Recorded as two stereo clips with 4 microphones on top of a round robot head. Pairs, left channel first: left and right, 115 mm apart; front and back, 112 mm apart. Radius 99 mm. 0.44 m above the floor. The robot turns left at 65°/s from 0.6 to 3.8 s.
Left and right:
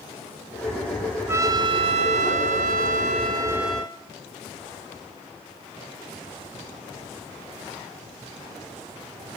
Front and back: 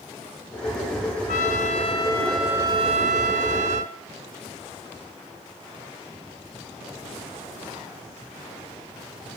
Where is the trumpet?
20° right, 0.8 m; by 4.0 s 175° left, 0.8 m.